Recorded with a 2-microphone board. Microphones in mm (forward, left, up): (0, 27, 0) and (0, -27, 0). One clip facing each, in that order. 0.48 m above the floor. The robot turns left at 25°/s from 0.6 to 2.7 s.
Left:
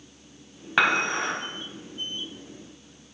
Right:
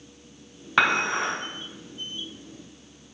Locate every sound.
0.8 s dishes clattering: 5° left (ahead or behind), 2 m; by 1.3 s 10° right (ahead or behind), 2 m